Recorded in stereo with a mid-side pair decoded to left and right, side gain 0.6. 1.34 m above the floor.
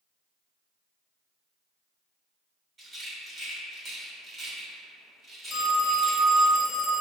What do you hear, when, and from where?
2.8 s a rattle: 25° right, 2.0 m
5.5 s a phone ringing: 30° left, 1.2 m